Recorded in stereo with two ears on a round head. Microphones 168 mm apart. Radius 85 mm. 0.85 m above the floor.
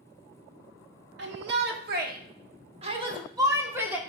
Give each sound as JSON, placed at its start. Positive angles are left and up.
{"t": 1.2, "sound": "a shout", "side_deg": -70, "distance_m": 1.5}